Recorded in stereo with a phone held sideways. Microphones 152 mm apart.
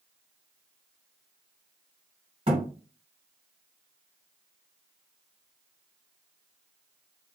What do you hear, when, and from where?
2.5 s a thud: 45° right (ahead or behind), 1.6 m